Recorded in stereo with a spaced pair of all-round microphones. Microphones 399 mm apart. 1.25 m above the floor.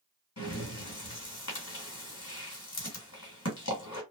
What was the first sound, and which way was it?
Breathing, 40° left (ahead or behind).